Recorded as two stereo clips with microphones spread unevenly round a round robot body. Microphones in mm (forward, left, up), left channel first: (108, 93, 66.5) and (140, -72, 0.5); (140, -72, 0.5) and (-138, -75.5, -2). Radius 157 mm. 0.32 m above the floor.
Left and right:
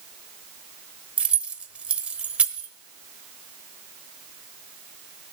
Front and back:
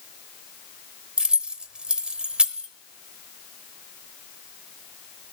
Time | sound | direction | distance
1.2 | keys jangling | 100° right | 0.9 m